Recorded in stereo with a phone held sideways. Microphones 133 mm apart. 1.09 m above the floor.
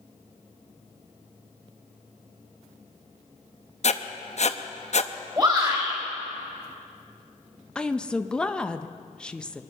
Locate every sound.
3.8 s writing: 55° left (ahead or behind), 0.7 m
5.4 s a shout: 30° right (ahead or behind), 4.5 m
7.8 s a woman speaking: 5° left (ahead or behind), 0.6 m